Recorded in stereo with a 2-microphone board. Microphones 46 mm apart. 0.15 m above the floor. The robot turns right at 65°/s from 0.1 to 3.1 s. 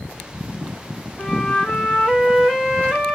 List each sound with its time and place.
1.2 s a flute: 30° left (ahead or behind), 1.9 m; by 3.1 s 15° right (ahead or behind), 1.9 m